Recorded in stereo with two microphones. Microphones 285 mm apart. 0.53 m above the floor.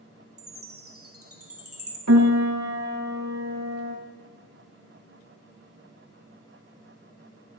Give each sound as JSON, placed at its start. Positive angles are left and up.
{"t": 0.4, "sound": "a chime", "side_deg": -55, "distance_m": 1.4}
{"t": 2.1, "sound": "a piano", "side_deg": -65, "distance_m": 1.2}